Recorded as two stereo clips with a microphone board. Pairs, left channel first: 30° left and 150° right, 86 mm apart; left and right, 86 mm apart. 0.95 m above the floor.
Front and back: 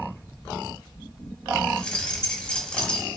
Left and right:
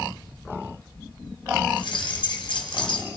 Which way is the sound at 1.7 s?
110° left.